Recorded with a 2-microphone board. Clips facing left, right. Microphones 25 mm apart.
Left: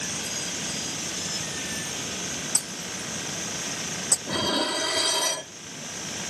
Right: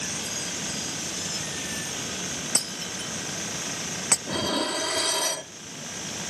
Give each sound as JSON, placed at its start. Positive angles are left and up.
{"t": 0.0, "sound": "running water", "side_deg": 5}
{"t": 2.5, "sound": "breaking glass", "side_deg": -75}
{"t": 4.3, "sound": "dishes clattering", "side_deg": 15}